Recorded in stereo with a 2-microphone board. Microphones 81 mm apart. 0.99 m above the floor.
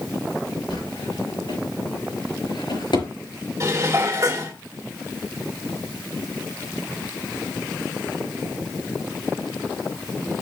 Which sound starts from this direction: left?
A drawer, at 0.7 s.